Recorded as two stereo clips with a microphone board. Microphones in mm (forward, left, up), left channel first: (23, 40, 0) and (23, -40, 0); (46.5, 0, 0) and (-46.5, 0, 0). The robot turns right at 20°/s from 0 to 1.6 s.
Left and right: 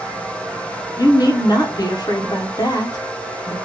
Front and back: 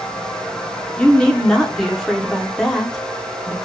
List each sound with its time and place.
1.0 s a woman speaking: 75° left, 0.8 m; by 3.5 s 85° left, 0.8 m